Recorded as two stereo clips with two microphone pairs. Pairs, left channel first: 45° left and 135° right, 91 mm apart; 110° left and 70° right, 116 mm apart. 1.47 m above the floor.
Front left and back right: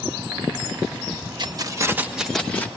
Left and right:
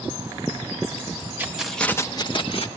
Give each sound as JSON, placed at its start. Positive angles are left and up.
{"t": 1.4, "sound": "keys jangling", "azimuth_deg": -145, "distance_m": 0.9}